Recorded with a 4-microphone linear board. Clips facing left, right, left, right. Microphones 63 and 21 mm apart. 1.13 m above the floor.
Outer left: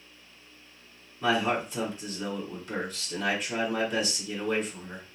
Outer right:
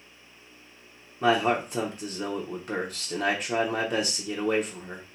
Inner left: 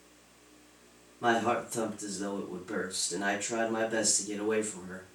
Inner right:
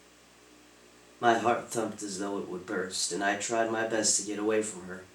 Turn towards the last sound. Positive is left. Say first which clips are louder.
# outer right 3 dB, inner right 3 dB
turn(degrees=-55)  # may be behind; listen again after turning